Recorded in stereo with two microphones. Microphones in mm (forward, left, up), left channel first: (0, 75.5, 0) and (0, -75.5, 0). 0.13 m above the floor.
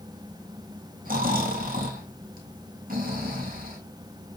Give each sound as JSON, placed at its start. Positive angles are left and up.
{"t": 1.1, "sound": "snoring", "side_deg": -70, "distance_m": 3.0}